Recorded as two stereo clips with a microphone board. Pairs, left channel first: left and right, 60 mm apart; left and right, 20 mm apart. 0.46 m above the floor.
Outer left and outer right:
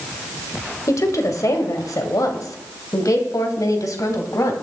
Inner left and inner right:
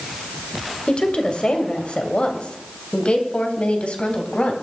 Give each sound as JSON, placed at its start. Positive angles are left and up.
{"t": 0.9, "sound": "a woman speaking", "side_deg": 60, "distance_m": 2.5}